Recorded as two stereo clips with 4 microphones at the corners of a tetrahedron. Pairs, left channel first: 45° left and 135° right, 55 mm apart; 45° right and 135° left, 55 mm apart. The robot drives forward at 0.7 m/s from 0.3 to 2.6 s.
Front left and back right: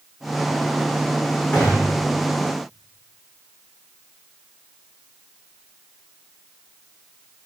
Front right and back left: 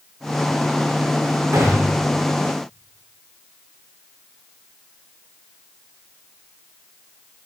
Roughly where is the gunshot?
Behind left.